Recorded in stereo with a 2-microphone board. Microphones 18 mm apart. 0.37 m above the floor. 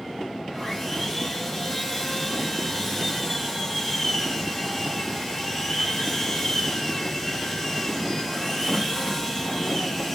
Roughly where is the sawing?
Centre.